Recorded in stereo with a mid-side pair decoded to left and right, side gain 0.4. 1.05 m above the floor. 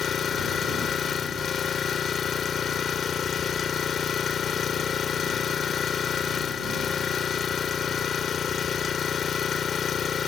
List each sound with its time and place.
0.0 s an engine running: 55° left